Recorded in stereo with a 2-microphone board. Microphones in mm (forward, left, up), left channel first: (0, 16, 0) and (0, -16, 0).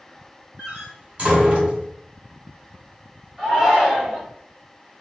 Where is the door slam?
40° right (ahead or behind), 2.5 m.